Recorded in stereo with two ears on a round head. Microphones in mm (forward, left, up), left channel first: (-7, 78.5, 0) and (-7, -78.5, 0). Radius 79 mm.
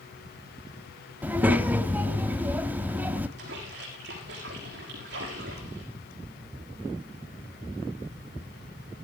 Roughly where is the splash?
Right.